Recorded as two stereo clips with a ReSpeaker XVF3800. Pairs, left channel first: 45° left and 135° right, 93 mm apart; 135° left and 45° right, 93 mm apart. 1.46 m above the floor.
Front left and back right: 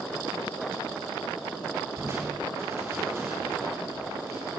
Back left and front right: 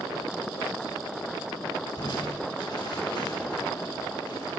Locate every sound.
2.0 s crushing: 160° left, 4.5 m